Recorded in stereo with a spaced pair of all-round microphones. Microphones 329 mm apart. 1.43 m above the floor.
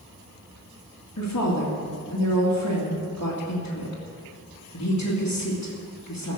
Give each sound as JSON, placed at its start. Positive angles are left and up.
{"t": 1.2, "sound": "a woman speaking", "side_deg": 60, "distance_m": 2.5}